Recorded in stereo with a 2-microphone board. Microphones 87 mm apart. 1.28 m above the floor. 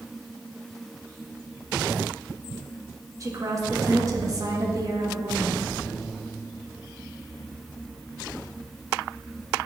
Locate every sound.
3.2 s a woman speaking: 40° right (ahead or behind), 1.9 m